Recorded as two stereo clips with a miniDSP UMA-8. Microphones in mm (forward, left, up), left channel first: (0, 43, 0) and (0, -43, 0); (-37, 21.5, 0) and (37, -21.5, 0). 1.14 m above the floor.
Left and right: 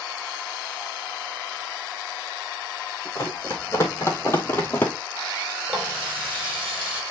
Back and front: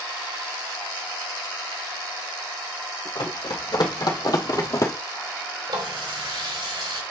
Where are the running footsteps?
140° left, 2.5 m; by 4.9 s 145° left, 1.4 m.